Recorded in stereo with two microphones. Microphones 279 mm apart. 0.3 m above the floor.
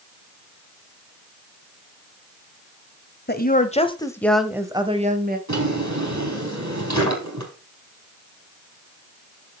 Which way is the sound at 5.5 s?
75° right (ahead or behind).